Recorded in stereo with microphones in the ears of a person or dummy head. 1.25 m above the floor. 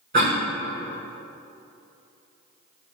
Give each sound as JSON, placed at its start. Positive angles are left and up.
{"t": 0.1, "sound": "a cough", "side_deg": -45, "distance_m": 1.6}